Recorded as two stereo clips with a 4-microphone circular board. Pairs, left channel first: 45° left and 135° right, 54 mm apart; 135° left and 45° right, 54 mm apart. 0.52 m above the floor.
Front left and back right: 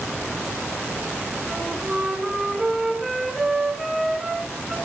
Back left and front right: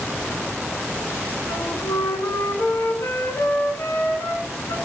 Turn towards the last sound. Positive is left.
turn(degrees=140)